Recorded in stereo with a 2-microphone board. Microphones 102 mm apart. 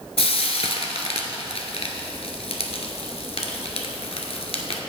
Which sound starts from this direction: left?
Frying, at 0.2 s.